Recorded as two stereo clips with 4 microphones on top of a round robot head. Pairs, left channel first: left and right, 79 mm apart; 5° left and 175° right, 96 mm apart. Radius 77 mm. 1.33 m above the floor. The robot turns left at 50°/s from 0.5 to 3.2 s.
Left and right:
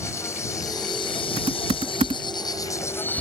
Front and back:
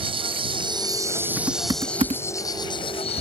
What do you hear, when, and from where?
0.0 s an insect: 155° left; by 3.2 s 20° left
1.4 s typing on a keyboard: 95° right; by 3.2 s 175° left